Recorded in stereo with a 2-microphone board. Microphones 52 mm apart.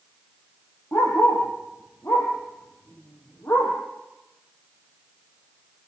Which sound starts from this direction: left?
A dog barking, at 0.9 s.